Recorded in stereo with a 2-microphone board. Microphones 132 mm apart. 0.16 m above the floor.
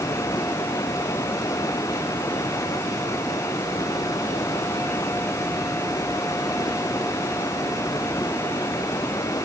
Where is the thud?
No thud in this recording.